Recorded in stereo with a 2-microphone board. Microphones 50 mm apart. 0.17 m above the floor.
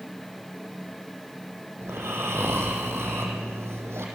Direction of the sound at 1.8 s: 60° right (ahead or behind).